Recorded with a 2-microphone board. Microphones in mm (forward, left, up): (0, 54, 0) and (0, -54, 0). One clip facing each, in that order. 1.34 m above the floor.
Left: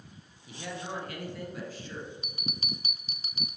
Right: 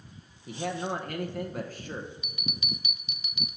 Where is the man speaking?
50° right (ahead or behind), 1.0 m.